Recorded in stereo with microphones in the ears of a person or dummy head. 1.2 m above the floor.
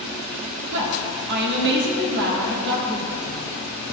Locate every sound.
0.7 s a woman speaking: 60° right (ahead or behind), 1.2 m